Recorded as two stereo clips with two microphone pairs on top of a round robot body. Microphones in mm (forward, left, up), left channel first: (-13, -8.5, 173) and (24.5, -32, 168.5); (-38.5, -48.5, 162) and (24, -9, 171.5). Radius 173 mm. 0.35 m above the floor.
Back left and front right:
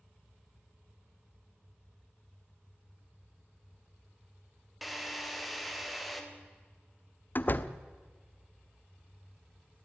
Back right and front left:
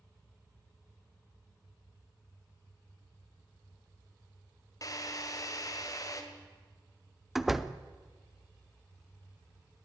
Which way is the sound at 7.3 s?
125° left.